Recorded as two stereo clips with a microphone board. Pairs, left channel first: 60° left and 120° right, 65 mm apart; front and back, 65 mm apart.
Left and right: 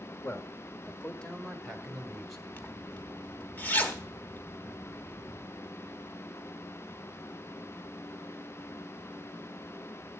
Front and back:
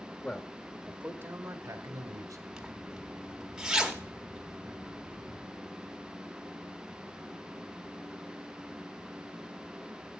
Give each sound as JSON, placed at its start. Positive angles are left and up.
{"t": 0.2, "sound": "a man speaking", "azimuth_deg": 55, "distance_m": 1.1}
{"t": 2.5, "sound": "a zipper", "azimuth_deg": 100, "distance_m": 1.3}